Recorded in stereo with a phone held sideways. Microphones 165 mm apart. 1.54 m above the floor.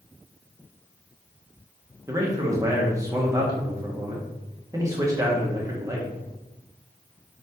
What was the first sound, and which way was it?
A man speaking, 20° right (ahead or behind).